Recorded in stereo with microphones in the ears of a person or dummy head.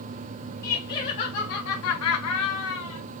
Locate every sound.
0.6 s laughter: 10° left (ahead or behind), 1.1 m; by 3.0 s 60° left (ahead or behind), 1.2 m